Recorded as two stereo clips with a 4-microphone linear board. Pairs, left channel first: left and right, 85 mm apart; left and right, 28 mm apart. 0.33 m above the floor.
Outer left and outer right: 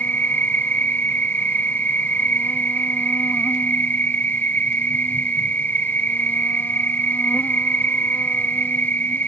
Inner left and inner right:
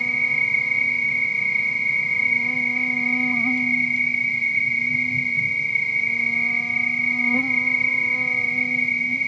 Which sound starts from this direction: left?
An insect, at 0.0 s.